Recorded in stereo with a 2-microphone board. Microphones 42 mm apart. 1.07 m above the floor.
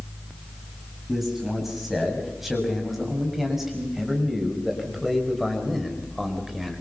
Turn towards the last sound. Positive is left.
turn(degrees=-5)  # may be behind; listen again after turning